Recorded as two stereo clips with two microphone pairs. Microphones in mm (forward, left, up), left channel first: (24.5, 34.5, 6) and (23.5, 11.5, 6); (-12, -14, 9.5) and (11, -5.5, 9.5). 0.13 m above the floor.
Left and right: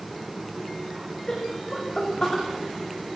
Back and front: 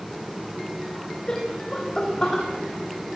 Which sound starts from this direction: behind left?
Laughter, at 1.3 s.